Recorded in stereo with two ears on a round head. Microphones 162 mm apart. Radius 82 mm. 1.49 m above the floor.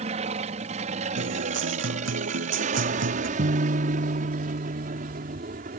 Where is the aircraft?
35° right (ahead or behind); by 5.8 s 45° right (ahead or behind).